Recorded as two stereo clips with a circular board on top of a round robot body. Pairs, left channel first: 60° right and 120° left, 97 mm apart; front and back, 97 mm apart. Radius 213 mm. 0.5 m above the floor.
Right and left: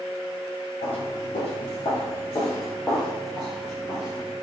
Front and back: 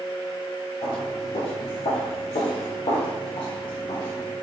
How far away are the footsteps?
About 1.0 m.